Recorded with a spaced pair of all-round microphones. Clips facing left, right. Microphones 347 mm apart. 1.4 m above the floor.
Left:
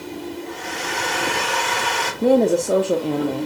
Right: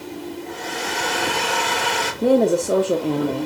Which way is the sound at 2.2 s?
Centre (ahead or behind).